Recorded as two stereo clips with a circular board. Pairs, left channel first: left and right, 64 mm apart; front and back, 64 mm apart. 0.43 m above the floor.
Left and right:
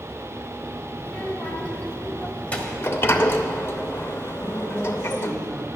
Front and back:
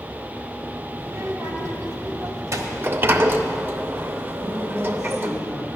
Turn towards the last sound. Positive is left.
turn(degrees=175)